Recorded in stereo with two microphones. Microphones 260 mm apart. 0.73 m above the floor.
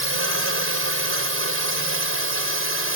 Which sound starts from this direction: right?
A drone, at 0.0 s.